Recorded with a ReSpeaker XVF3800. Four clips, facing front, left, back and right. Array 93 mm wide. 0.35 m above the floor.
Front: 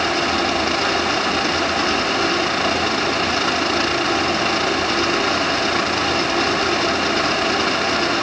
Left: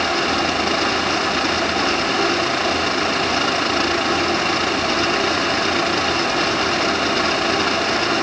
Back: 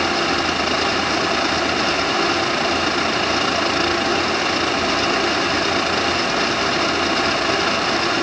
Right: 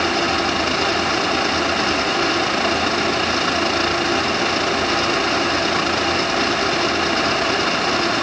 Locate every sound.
Only background noise.